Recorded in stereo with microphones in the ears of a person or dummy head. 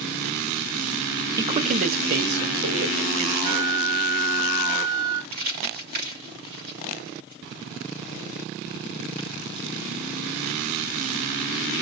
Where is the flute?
35° right (ahead or behind), 4.5 m.